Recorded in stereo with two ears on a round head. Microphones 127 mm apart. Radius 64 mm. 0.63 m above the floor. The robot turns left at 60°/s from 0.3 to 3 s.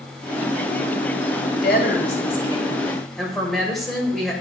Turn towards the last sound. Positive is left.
turn(degrees=0)